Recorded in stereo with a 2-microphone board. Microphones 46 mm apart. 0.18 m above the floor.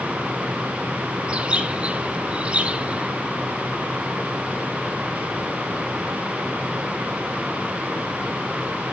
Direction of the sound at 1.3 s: 25° right (ahead or behind).